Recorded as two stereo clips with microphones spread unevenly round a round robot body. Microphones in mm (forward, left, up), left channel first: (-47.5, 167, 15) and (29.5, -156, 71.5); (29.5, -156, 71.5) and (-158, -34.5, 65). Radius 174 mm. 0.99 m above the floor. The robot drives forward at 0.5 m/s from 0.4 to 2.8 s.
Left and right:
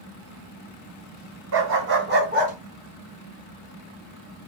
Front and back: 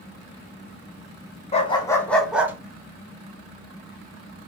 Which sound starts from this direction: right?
A dog barking, at 1.5 s.